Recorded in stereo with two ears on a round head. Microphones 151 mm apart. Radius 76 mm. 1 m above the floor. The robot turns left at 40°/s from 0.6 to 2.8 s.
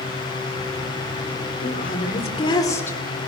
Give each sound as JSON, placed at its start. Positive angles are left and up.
{"t": 1.6, "sound": "a woman speaking", "azimuth_deg": 65, "distance_m": 2.5}